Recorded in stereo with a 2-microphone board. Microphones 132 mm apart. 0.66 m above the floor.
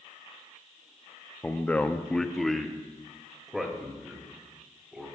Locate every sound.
1.4 s a man speaking: 10° left (ahead or behind), 0.8 m; by 5.1 s 5° right (ahead or behind), 4.5 m